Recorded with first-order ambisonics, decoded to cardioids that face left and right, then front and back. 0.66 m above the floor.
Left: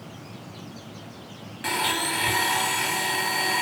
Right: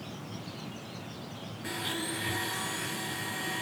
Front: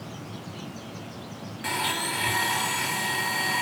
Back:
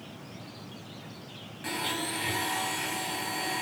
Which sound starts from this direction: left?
A blender, at 1.6 s.